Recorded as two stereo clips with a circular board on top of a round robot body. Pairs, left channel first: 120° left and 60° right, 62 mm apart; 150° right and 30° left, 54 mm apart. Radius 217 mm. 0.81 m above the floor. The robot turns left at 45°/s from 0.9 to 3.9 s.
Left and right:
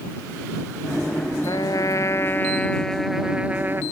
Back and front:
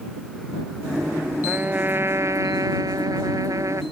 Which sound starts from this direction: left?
A trumpet, at 1.4 s.